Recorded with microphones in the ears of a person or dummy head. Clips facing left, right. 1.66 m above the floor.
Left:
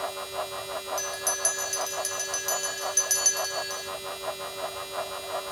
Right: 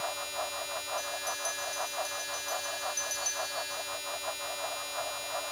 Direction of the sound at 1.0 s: 85° left.